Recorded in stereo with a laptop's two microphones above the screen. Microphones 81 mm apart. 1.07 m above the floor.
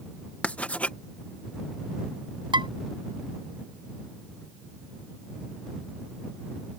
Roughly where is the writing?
Centre.